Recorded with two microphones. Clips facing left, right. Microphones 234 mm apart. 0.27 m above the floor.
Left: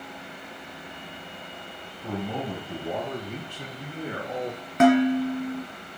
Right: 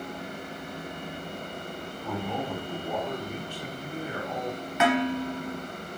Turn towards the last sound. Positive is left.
turn(degrees=50)  # may be behind; listen again after turning